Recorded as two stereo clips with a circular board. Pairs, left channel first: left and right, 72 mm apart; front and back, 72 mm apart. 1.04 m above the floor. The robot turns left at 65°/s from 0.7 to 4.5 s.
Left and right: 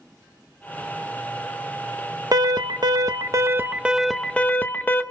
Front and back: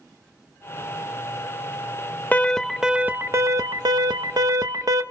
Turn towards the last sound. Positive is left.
turn(degrees=155)